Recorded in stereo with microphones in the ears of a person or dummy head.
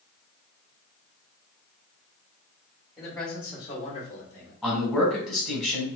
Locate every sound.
3.0 s a man speaking: 10° right (ahead or behind), 1.1 m; by 4.5 s 65° left (ahead or behind), 1.0 m
4.6 s a man speaking: 5° right (ahead or behind), 1.5 m